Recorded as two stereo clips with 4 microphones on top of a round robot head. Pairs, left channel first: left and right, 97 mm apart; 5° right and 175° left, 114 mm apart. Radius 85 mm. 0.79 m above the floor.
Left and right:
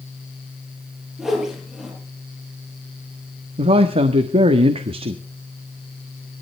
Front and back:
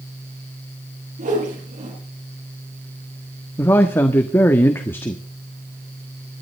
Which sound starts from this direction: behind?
A whoosh, at 1.2 s.